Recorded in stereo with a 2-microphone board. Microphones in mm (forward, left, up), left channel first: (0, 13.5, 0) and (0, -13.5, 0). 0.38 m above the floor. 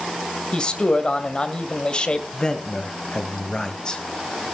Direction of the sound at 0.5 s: 40° left (ahead or behind).